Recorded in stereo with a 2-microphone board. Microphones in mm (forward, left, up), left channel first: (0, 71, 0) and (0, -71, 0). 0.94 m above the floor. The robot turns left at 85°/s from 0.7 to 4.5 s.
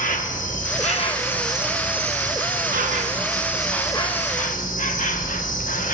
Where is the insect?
70° left, 0.8 m; by 5.9 s 105° left, 0.8 m.